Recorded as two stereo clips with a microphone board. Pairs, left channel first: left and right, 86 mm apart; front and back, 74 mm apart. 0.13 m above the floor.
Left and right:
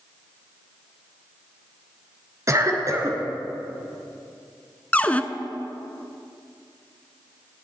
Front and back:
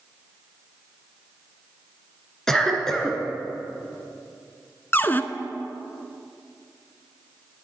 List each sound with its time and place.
2.5 s a cough: 80° right, 1.7 m
4.9 s a cupboard door: 30° left, 0.5 m